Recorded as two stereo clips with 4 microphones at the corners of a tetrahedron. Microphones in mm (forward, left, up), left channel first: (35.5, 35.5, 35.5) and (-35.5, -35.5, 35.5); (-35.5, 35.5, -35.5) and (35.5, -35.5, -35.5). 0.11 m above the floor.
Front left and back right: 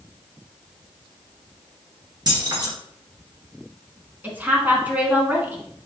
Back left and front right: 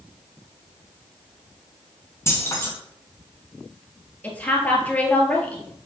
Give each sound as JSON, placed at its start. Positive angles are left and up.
{"t": 2.3, "sound": "keys jangling", "azimuth_deg": -170, "distance_m": 1.8}
{"t": 4.2, "sound": "a woman speaking", "azimuth_deg": -175, "distance_m": 1.1}